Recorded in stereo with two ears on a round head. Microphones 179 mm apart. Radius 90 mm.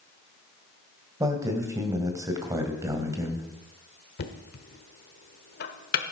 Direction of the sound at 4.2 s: 50° left (ahead or behind).